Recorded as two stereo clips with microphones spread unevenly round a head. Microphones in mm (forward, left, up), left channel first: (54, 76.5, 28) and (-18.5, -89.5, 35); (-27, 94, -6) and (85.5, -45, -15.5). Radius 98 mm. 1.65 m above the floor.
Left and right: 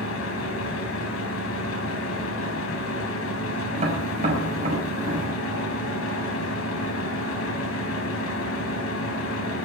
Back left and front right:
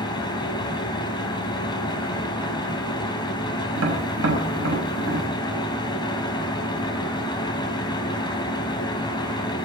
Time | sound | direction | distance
0.0 | a fan | 65° left | 3.5 m
3.8 | tapping | 60° right | 6 m